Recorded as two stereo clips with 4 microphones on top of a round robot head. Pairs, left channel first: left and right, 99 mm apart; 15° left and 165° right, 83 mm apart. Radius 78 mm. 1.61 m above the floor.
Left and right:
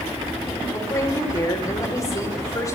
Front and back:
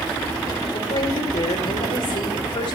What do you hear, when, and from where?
0.7 s a woman speaking: 35° left, 6.5 m